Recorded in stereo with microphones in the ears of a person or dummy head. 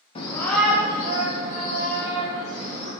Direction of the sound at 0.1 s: 30° left (ahead or behind).